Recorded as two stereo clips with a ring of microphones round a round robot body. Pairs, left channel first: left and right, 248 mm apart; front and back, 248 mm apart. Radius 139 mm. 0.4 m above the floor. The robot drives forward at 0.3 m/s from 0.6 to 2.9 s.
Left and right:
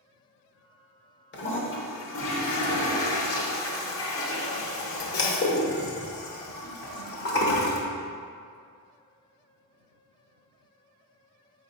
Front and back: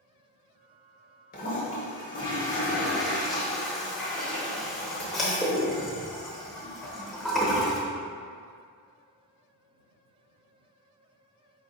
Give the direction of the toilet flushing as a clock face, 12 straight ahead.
10 o'clock.